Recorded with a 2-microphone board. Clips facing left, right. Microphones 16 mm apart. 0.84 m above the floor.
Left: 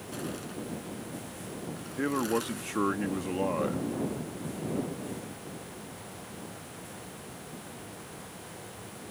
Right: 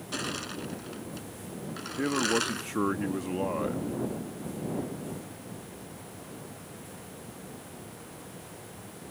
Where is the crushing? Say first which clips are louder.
Right 4 dB; 50° right (ahead or behind).